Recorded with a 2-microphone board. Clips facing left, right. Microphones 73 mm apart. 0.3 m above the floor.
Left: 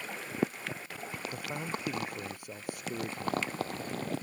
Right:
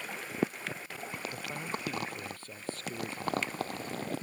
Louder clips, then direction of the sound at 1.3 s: Left 2 dB; 15° left (ahead or behind).